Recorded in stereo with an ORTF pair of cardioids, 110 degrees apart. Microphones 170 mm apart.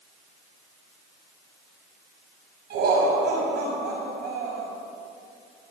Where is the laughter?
70° right, 6.5 m.